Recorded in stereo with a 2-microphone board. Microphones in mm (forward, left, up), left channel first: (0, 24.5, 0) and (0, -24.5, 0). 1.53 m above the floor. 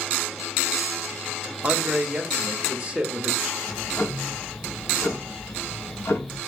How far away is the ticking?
About 0.5 m.